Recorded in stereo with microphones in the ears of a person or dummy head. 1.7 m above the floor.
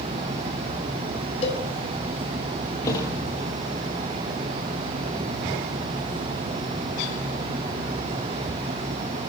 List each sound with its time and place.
1.4 s a cowbell: 35° left (ahead or behind), 6 m
2.8 s a thud: 20° left (ahead or behind), 6.5 m